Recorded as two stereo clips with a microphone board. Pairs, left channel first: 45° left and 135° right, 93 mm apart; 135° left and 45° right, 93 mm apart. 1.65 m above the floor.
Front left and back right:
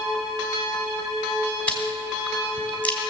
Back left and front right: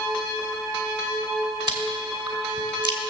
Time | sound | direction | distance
1.7 | chewing | 25° right | 2.5 m